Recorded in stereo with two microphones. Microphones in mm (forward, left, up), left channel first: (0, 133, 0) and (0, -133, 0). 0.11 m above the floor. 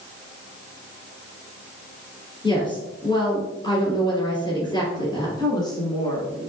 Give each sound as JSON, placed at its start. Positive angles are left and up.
{"t": 2.4, "sound": "a woman speaking", "side_deg": 15, "distance_m": 2.0}
{"t": 5.4, "sound": "a woman speaking", "side_deg": 15, "distance_m": 1.1}